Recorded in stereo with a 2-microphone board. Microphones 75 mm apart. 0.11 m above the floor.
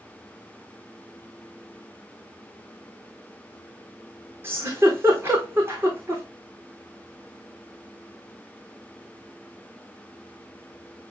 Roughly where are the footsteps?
I don't hear footsteps.